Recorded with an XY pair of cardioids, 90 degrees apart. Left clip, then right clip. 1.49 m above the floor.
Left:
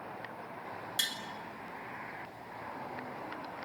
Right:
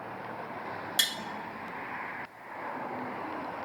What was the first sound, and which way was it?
Tapping, 50° right.